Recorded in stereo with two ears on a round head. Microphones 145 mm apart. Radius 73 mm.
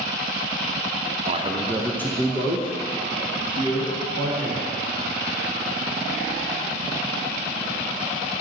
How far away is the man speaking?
About 0.7 m.